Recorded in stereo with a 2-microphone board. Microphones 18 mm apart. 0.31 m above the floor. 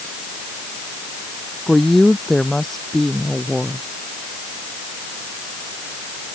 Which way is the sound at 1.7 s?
15° left (ahead or behind).